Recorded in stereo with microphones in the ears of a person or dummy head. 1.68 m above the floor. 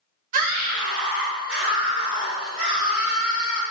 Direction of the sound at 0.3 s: 45° right (ahead or behind).